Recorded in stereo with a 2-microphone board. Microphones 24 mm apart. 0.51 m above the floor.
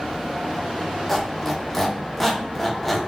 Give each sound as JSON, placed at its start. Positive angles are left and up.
{"t": 1.1, "sound": "a squeak", "side_deg": 10, "distance_m": 0.8}